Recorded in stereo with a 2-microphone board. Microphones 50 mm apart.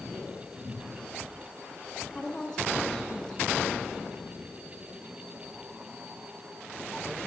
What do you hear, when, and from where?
2.1 s a woman speaking: 10° left (ahead or behind), 8 m